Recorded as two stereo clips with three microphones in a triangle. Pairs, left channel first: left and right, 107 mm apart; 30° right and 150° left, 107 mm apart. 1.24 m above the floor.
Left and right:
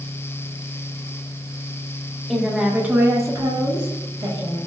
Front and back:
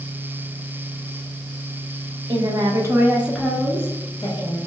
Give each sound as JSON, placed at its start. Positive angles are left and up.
{"t": 2.3, "sound": "a woman speaking", "azimuth_deg": 180, "distance_m": 0.8}